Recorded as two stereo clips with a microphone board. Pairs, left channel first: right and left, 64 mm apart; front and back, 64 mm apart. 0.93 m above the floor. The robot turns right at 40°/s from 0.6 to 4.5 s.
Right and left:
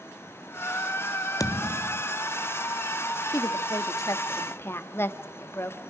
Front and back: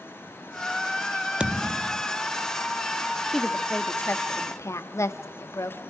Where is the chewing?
No chewing in this recording.